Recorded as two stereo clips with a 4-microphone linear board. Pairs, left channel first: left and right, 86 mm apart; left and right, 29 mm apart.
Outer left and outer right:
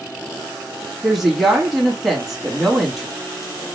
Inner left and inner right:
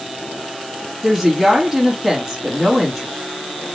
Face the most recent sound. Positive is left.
turn(degrees=-5)  # may be behind; listen again after turning